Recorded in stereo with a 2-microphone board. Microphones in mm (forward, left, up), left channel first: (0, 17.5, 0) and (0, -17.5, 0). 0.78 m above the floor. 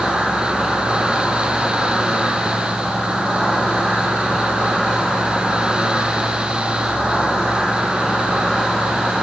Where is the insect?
20° right (ahead or behind), 1.6 m.